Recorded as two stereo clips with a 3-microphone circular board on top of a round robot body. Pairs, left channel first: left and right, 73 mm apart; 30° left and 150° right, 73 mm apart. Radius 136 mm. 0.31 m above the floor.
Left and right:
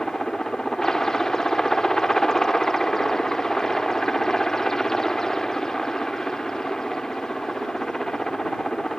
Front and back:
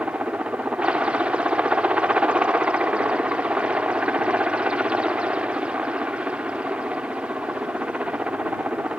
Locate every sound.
0.0 s a helicopter: 160° left